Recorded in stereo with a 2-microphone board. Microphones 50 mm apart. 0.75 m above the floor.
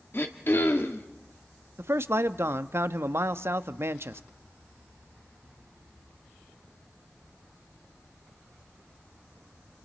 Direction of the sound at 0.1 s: 50° left (ahead or behind).